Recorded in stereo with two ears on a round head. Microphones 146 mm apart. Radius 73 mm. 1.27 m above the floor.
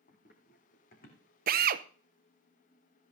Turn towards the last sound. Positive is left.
turn(degrees=-55)  # may be behind; listen again after turning